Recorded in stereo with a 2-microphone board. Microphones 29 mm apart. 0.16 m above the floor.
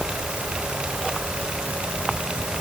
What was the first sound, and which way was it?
Only background noise.